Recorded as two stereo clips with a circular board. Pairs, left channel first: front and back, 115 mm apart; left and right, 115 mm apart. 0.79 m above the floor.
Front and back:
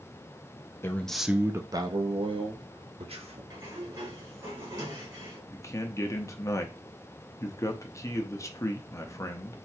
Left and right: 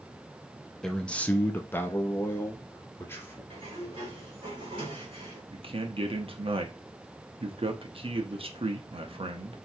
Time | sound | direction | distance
0.8 | a man speaking | 10° left | 0.6 m
3.5 | a sliding door | 130° right | 2.5 m
5.5 | a man speaking | 60° right | 1.0 m